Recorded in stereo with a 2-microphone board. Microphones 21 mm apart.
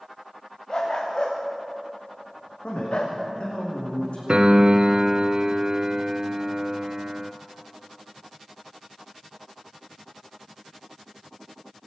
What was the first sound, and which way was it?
A dog barking, 35° left (ahead or behind).